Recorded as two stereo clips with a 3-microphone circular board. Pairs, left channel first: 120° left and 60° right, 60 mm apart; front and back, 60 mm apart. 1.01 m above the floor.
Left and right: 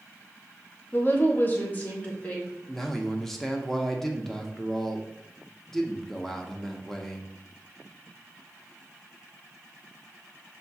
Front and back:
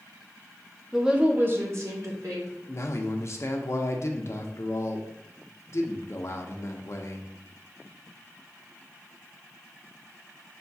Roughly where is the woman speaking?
Left.